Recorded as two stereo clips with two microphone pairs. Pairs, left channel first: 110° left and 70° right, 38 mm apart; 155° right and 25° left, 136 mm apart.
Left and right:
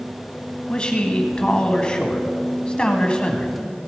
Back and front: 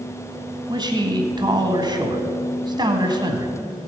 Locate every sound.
0.7 s a man speaking: 60° left, 1.3 m